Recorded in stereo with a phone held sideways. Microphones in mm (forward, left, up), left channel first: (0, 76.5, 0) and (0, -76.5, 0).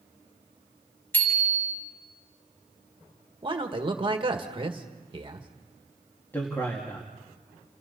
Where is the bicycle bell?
15° left (ahead or behind), 6 m.